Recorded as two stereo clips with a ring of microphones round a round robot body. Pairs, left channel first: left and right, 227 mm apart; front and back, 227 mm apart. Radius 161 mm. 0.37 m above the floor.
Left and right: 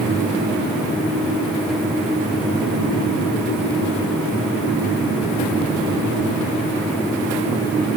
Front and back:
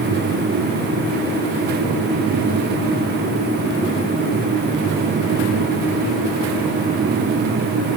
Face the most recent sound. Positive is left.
No sound to turn to.